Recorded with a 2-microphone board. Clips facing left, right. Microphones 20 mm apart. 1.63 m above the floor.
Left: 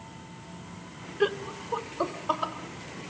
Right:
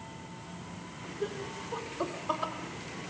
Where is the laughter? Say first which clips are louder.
Left 9 dB; 65° left (ahead or behind), 0.9 m; by 2.5 s 15° left (ahead or behind), 2.5 m.